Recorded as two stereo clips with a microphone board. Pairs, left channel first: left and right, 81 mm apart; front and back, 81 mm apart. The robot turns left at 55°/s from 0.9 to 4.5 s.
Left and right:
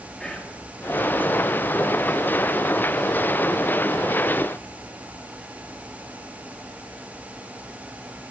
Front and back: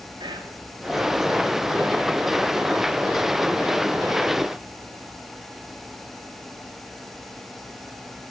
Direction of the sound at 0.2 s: 170° left.